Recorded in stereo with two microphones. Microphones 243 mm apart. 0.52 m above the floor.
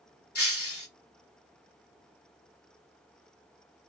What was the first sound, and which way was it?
Breaking glass, 70° left (ahead or behind).